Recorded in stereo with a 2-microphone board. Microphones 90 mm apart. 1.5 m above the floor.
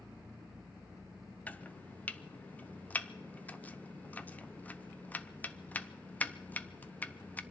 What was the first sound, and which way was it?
Chopping, 20° left (ahead or behind).